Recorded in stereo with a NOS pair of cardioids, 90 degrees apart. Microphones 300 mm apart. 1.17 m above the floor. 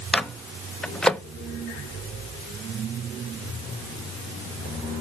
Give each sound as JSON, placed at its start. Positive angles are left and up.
{"t": 0.1, "sound": "a microwave", "azimuth_deg": 0, "distance_m": 0.6}